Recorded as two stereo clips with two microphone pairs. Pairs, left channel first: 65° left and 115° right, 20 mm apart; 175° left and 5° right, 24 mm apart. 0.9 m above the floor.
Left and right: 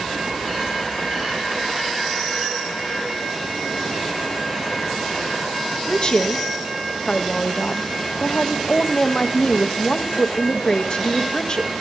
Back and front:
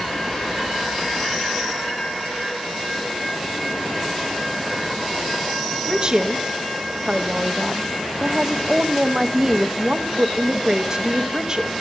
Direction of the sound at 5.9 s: 40° left.